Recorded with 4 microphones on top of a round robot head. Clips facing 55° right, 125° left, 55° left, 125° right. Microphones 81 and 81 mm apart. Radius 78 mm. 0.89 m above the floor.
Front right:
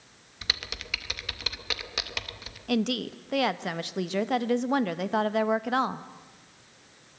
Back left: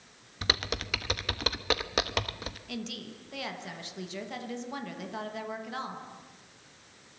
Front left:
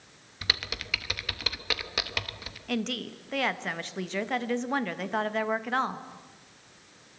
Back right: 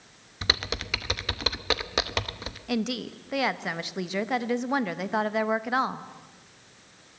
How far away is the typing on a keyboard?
About 0.8 m.